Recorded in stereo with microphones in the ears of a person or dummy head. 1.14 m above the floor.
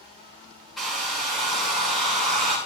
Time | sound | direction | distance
0.8 | a hair dryer | 5° left (ahead or behind) | 2.5 m